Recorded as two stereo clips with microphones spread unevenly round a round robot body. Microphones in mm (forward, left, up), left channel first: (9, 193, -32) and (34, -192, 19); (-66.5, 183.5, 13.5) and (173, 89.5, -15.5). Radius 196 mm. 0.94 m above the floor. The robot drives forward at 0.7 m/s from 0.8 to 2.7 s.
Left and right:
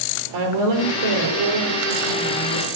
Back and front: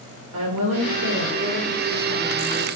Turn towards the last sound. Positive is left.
turn(degrees=-85)